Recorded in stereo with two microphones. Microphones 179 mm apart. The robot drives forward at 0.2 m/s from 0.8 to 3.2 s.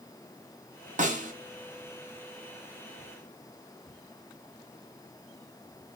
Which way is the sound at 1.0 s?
40° right (ahead or behind).